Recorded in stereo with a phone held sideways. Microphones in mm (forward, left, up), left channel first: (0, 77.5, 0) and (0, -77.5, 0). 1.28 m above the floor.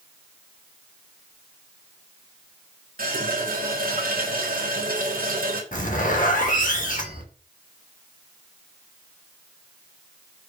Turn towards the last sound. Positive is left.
turn(degrees=60)  # may be behind; listen again after turning